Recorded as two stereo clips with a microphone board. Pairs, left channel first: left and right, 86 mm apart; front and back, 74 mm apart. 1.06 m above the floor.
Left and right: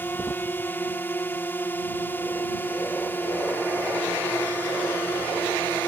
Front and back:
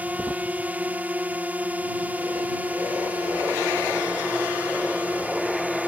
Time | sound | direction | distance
0.0 | a drone | 130° left | ?